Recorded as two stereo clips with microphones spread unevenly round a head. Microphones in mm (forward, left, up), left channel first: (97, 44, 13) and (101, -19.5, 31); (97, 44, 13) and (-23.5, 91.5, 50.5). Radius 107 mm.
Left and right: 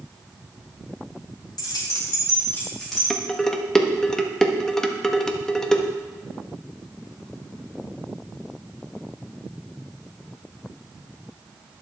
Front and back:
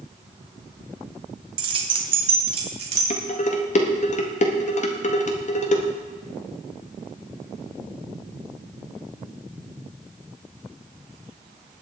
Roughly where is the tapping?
No tapping in this recording.